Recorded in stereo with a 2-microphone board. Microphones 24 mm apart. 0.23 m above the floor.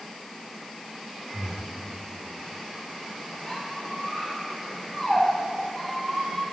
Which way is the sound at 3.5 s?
30° left (ahead or behind).